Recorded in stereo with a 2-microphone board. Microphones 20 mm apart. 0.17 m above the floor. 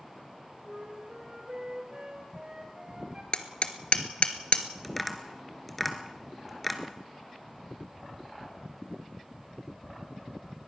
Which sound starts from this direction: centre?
Tapping, at 4.8 s.